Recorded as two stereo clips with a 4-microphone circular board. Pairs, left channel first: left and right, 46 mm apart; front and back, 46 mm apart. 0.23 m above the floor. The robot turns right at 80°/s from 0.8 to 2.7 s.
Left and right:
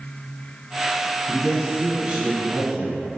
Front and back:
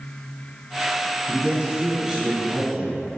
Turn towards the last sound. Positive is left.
turn(degrees=-80)